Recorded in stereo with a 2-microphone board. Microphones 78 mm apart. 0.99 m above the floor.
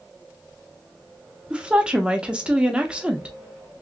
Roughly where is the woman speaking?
Centre.